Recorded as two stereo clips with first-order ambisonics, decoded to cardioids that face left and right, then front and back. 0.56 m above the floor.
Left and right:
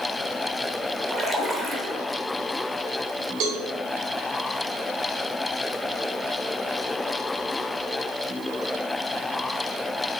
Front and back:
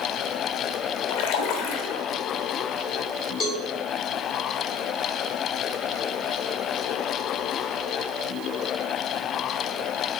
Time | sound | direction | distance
1.1 | a splash | 15° right | 0.9 m
3.4 | a cowbell | 60° right | 2.5 m